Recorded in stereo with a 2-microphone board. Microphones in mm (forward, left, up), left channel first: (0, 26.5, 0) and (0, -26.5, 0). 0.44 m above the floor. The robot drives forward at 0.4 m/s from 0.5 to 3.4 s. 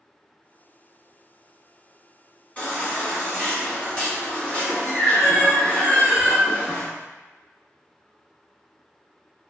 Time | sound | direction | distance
2.6 | a baby crying | 30° left (ahead or behind) | 1.4 m